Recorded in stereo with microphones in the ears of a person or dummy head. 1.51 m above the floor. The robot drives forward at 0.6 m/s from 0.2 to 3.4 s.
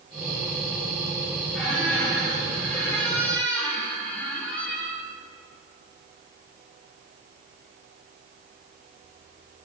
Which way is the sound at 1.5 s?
5° left (ahead or behind).